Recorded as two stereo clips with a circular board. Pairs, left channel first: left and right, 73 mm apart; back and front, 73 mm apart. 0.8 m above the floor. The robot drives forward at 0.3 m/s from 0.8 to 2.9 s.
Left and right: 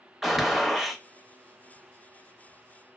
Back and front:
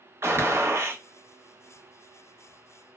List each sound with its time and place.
0.2 s a gunshot: straight ahead, 0.6 m